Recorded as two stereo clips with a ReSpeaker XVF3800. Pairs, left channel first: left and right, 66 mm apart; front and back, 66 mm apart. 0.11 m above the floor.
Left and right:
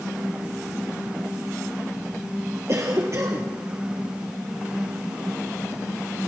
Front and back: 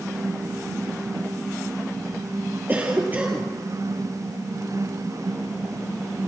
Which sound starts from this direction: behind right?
A cough, at 2.7 s.